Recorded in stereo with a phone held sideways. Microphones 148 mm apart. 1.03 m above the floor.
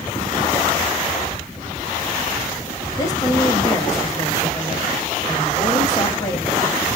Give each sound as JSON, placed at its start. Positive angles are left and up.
{"t": 3.0, "sound": "a woman speaking", "side_deg": 20, "distance_m": 2.0}